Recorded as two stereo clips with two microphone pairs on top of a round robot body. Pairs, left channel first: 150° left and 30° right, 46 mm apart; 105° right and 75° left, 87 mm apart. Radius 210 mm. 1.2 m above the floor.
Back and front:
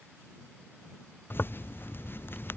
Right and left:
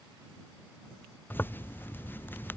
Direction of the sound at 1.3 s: 165° right.